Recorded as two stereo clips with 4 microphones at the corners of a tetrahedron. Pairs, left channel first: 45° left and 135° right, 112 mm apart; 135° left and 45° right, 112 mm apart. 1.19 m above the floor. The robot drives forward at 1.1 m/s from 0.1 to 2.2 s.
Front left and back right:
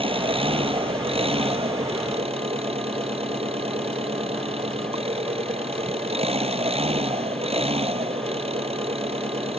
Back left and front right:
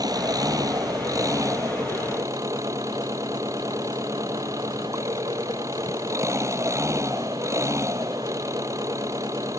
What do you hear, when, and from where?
0.0 s an engine running: 100° right; by 9.6 s 105° right